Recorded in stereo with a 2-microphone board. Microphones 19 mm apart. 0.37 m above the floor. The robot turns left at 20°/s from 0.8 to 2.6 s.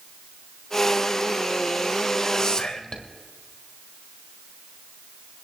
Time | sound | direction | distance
2.4 | whispering | 45° left (ahead or behind) | 1.6 m